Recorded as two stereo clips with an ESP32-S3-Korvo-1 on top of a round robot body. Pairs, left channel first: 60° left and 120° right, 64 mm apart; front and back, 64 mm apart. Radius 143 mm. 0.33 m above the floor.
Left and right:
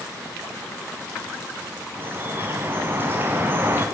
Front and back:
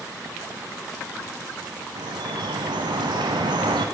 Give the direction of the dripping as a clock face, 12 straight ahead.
6 o'clock.